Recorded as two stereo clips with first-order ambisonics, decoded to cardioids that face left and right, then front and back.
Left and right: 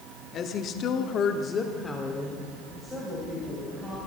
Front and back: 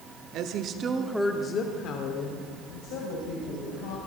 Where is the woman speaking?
145° left, 1.5 m; by 4.0 s 5° right, 4 m.